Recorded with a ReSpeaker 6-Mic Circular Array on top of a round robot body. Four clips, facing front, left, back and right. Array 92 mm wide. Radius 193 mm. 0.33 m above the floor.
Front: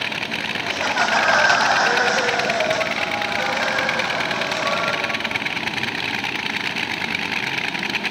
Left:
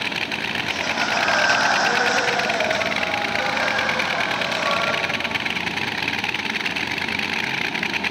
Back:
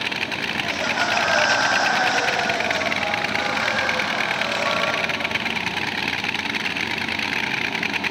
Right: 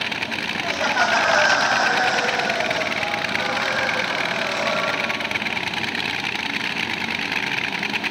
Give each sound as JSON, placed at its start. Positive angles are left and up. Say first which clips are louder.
{"t": 0.6, "sound": "laughter", "louder": "right 6 dB, front 3 dB", "azimuth_deg": -55, "distance_m": 1.7}